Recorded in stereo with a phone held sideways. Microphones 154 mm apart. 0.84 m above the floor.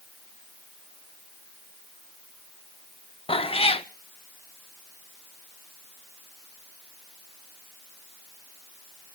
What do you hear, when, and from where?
3.3 s a cat meowing: 40° left (ahead or behind), 0.5 m